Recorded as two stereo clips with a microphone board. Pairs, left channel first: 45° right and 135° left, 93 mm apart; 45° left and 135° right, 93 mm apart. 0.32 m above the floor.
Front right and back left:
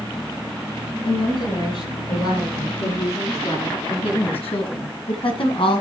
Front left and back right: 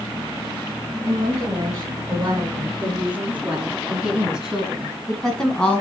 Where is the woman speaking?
70° right, 5 m; by 5.8 s 30° right, 2.5 m.